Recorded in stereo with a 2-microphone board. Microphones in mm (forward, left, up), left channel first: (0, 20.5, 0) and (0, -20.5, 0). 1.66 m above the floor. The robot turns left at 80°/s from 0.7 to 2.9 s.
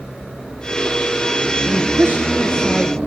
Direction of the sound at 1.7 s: 95° right.